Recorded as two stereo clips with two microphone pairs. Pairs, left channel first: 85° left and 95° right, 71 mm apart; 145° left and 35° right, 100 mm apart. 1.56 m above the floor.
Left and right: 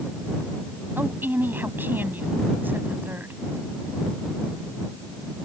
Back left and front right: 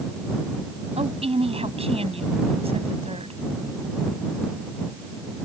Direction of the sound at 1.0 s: 35° right.